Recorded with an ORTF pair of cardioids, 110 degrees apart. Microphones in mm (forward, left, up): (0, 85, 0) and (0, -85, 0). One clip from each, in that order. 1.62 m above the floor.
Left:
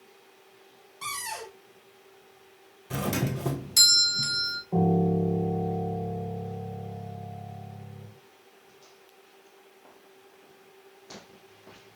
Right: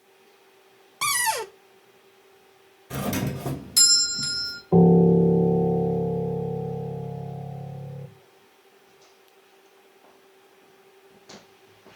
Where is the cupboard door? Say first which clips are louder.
Right 11 dB; 65° right, 0.9 m.